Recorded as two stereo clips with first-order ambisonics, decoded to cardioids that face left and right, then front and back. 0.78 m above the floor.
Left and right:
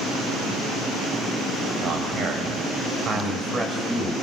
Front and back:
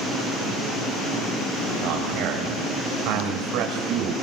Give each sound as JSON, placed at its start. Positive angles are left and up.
{"t": 1.8, "sound": "a man speaking", "azimuth_deg": -145, "distance_m": 5.0}